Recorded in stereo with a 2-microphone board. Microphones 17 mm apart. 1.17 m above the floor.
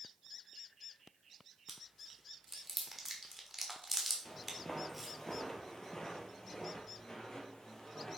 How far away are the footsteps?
About 1.7 m.